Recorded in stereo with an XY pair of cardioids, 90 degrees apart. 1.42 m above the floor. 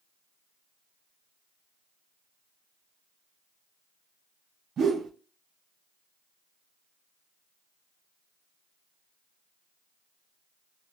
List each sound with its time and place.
4.8 s a whoosh: 65° right, 0.7 m